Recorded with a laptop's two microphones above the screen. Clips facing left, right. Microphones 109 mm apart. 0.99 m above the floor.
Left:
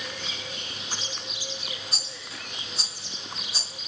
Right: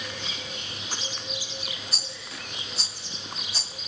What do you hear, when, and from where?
1.9 s a rattle: 15° left (ahead or behind), 2.5 m